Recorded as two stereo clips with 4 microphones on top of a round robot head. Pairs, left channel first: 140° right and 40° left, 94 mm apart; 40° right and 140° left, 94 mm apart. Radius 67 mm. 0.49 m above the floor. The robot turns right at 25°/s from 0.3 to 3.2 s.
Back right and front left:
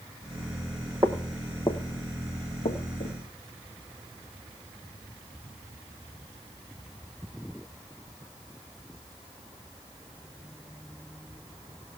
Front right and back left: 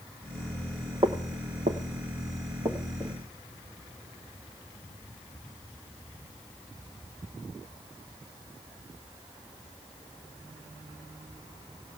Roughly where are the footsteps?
Left.